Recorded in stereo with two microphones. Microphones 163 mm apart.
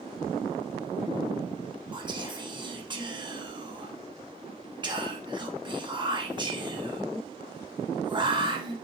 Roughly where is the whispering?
Right.